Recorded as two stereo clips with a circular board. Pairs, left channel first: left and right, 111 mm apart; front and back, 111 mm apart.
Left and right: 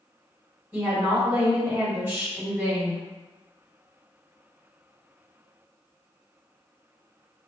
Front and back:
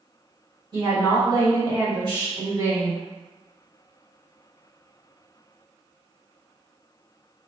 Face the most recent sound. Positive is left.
turn(degrees=-160)